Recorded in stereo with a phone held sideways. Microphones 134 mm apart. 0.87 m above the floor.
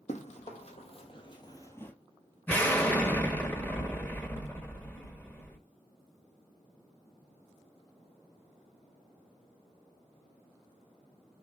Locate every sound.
0.1 s running footsteps: 60° left (ahead or behind), 1.8 m; by 1.9 s 10° left (ahead or behind), 1.0 m
2.5 s an explosion: 15° left (ahead or behind), 1.1 m